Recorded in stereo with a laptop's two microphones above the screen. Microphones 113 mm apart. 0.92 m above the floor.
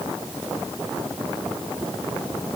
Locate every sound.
Only background noise.